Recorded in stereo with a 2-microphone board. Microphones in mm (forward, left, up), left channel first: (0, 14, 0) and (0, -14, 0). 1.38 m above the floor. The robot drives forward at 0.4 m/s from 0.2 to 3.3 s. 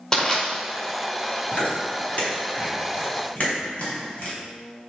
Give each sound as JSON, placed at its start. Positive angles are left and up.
{"t": 0.1, "sound": "crushing", "side_deg": 30, "distance_m": 2.0}
{"t": 1.5, "sound": "chewing", "side_deg": 50, "distance_m": 4.0}